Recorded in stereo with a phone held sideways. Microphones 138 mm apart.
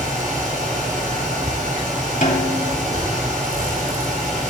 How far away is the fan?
About 3.5 m.